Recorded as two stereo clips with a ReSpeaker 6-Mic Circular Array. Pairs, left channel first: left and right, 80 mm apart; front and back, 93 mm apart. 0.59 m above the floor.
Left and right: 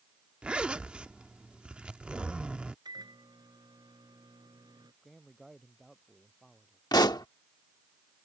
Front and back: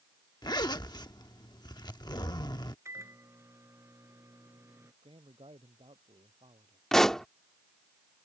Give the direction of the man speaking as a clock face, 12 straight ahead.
6 o'clock.